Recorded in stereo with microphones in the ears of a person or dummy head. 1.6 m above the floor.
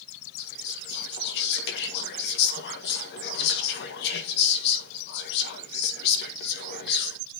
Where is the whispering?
60° left (ahead or behind), 1.5 m.